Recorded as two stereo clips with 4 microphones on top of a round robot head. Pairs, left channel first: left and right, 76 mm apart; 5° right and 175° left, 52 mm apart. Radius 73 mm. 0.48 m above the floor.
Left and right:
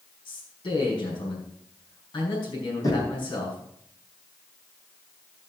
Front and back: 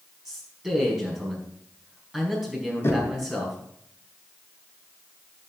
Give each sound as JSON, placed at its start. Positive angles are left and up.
{"t": 0.2, "sound": "a man speaking", "azimuth_deg": 95, "distance_m": 5.0}
{"t": 2.8, "sound": "knocking", "azimuth_deg": 35, "distance_m": 4.5}